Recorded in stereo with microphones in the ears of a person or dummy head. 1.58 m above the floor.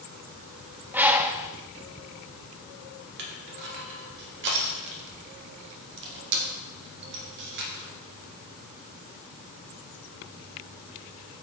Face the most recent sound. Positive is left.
turn(degrees=-55)  # may be behind; listen again after turning